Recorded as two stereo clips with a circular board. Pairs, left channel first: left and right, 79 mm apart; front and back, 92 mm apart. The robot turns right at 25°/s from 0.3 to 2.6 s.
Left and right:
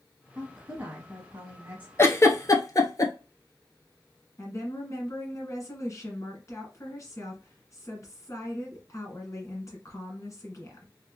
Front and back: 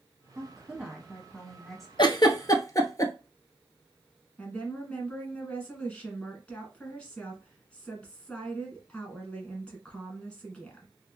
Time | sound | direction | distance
0.3 | a woman speaking | 120° right | 1.0 m
2.0 | a giggle | 35° left | 0.6 m
4.4 | a woman speaking | 70° left | 1.7 m